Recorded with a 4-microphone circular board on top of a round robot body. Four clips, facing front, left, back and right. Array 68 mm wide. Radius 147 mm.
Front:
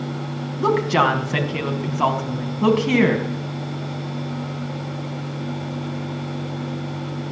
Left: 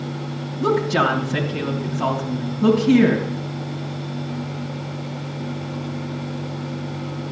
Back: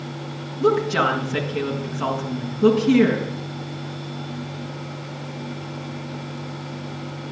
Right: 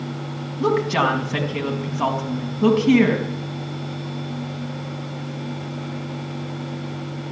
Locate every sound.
0.6 s a woman speaking: 25° right, 4.5 m